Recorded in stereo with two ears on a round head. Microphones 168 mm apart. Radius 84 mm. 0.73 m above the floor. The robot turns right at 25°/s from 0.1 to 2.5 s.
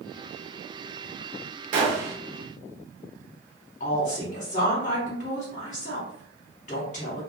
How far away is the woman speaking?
About 1.7 m.